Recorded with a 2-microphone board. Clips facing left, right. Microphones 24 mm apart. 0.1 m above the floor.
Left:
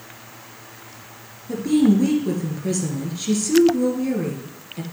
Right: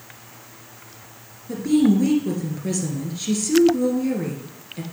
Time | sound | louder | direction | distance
1.5 | a woman speaking | left 1 dB | centre (ahead or behind) | 2.0 m